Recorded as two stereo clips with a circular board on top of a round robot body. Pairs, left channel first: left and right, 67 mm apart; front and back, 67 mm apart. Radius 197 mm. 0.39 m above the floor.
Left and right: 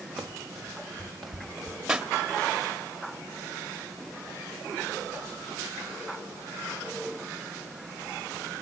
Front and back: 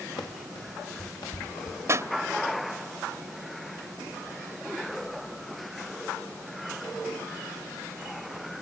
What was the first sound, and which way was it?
Running footsteps, straight ahead.